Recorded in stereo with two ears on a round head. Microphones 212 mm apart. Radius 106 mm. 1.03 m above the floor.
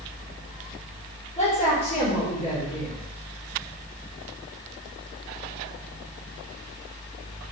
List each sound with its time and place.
1.4 s a woman speaking: 30° left (ahead or behind), 3.5 m